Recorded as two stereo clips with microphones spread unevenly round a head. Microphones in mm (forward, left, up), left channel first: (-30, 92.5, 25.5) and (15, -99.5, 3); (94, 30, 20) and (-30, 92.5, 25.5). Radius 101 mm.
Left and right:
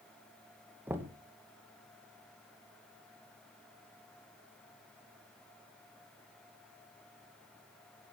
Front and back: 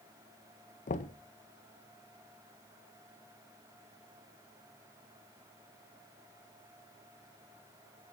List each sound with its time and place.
0.9 s knocking: 5° left, 1.7 m